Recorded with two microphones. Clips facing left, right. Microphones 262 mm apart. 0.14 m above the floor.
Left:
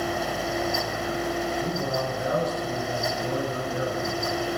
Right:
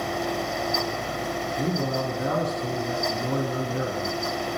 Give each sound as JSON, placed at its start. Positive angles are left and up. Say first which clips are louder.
{"t": 1.6, "sound": "a man speaking", "louder": "right 2 dB", "side_deg": -50, "distance_m": 3.5}